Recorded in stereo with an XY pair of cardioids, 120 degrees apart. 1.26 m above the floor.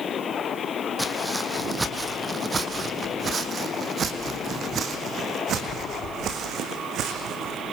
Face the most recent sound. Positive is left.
turn(degrees=-65)